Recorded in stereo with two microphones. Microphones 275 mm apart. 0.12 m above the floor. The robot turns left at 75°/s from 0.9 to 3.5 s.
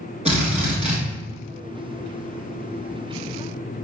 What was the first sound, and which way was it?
A drill, 25° right (ahead or behind).